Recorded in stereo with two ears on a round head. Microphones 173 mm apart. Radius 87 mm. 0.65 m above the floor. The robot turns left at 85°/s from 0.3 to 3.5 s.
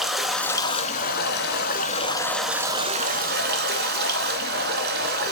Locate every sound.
0.0 s running water: straight behind, 0.8 m; by 5.3 s 90° right, 0.8 m